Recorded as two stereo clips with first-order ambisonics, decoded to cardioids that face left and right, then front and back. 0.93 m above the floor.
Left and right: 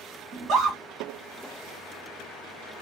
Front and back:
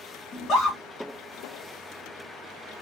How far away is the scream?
About 1.6 m.